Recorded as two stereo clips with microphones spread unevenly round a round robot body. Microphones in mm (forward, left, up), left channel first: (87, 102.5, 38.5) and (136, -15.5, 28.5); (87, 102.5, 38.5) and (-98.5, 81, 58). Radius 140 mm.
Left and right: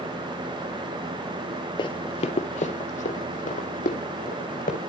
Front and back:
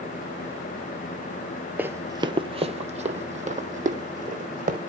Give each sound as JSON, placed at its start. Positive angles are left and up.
{"t": 1.8, "sound": "running footsteps", "azimuth_deg": 120, "distance_m": 0.6}